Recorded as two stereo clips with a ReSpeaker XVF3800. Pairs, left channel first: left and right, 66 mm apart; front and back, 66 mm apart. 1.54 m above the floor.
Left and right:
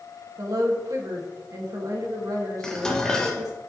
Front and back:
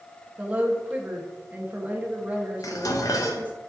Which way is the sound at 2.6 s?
10° left.